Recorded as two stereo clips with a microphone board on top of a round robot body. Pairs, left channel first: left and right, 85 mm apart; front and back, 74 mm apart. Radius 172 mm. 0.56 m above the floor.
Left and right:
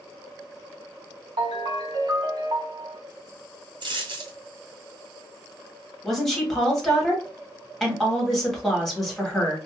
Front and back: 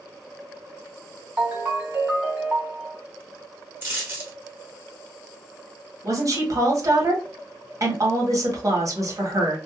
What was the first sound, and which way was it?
A ringtone, 115° right.